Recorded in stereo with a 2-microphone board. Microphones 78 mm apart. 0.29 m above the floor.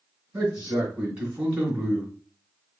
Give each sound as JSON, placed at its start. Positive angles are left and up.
{"t": 0.3, "sound": "a man speaking", "side_deg": -15, "distance_m": 2.5}